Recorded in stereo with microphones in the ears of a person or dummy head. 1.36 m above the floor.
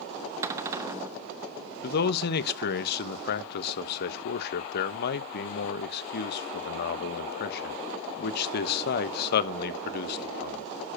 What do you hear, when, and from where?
0.4 s a cupboard door: 15° right (ahead or behind), 0.7 m
1.8 s a man speaking: 65° left (ahead or behind), 1.0 m